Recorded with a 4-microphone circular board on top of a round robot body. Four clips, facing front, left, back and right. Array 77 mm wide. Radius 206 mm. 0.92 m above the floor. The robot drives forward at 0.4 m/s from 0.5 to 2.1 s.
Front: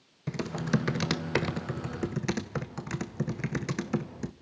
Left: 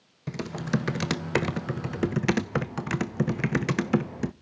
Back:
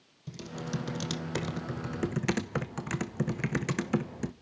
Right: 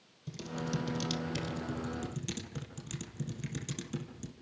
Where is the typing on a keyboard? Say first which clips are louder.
Left 8 dB, front 7 dB; 45° left, 0.8 m; by 4.3 s 95° left, 0.6 m.